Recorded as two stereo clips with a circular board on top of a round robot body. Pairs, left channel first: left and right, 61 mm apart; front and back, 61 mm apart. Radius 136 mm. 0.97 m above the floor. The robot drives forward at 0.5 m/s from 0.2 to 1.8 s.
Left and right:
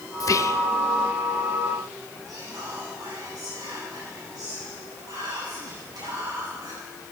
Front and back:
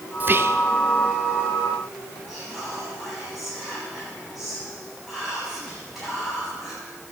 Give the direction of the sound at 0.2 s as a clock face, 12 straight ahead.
8 o'clock.